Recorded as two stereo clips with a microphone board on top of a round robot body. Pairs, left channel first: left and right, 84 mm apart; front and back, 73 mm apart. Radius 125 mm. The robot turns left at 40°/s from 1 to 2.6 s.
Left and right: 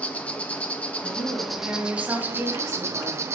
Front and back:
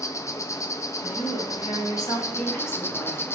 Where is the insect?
20° left, 0.8 m; by 3.3 s 45° right, 0.8 m.